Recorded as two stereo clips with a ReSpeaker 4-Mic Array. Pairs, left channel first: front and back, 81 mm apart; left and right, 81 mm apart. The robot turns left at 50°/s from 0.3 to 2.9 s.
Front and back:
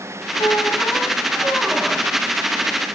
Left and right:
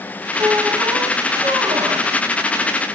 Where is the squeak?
40° right, 2 m; by 2.1 s 125° right, 2 m.